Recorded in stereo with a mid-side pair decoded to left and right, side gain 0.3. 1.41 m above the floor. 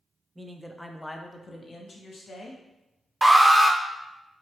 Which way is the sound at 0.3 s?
25° right.